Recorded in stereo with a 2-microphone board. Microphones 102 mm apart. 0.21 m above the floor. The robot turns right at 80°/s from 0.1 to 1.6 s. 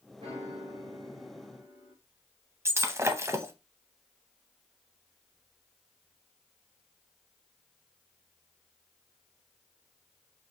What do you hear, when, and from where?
0.2 s a piano: 120° right, 2.5 m; by 1.9 s 10° right, 2.5 m
2.6 s breaking glass: 25° right (ahead or behind), 0.6 m